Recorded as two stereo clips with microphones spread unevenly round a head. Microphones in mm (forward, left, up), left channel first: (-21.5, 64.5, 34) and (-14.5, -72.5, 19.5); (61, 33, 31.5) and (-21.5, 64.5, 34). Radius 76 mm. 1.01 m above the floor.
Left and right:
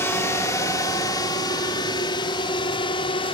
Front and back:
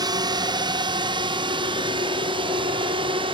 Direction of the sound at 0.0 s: 160° left.